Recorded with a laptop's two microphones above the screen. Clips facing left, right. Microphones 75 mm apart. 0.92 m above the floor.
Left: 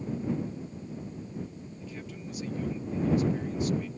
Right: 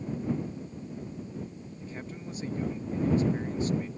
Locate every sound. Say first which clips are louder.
1.8 s a man speaking: right 2 dB; 35° right (ahead or behind)